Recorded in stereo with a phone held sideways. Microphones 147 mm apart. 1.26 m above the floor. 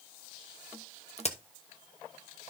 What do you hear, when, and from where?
1.2 s a crack: 45° left (ahead or behind), 1.0 m